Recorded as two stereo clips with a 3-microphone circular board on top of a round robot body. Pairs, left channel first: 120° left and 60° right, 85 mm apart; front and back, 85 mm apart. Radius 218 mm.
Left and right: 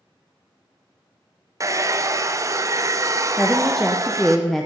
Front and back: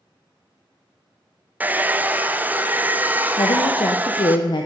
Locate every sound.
1.6 s a hair dryer: 110° right, 0.7 m
3.4 s a woman speaking: 30° left, 0.7 m